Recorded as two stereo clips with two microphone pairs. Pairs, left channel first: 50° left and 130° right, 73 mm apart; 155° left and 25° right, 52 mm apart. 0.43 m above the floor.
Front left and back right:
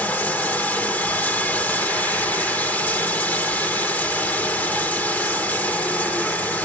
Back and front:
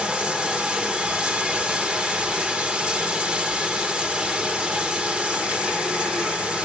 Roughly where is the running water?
Ahead.